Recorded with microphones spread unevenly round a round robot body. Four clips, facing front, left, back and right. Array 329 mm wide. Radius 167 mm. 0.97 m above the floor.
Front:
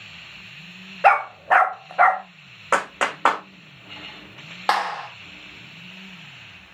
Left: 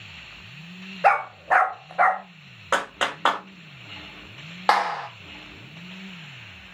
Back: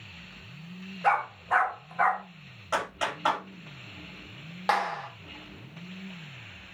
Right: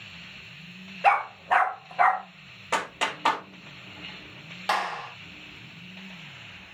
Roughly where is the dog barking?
Ahead left.